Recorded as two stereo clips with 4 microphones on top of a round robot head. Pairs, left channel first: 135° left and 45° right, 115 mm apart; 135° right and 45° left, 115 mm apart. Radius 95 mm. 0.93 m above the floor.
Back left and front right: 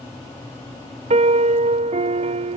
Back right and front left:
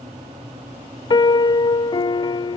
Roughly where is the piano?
Right.